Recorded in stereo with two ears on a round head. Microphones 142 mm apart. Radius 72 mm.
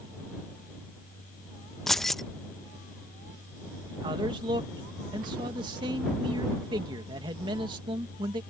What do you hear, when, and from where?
1.9 s keys jangling: centre (ahead or behind)
3.9 s a man speaking: 30° right (ahead or behind)